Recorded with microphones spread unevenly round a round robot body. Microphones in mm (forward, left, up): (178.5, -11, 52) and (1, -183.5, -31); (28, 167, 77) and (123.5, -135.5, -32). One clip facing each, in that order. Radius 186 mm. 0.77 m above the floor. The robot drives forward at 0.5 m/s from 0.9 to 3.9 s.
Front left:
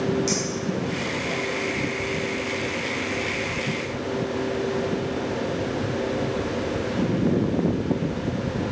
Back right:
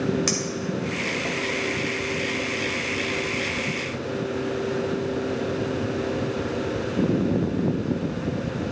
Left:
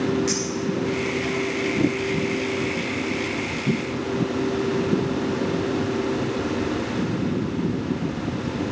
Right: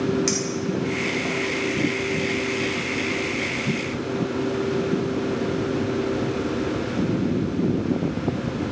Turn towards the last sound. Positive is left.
turn(degrees=-155)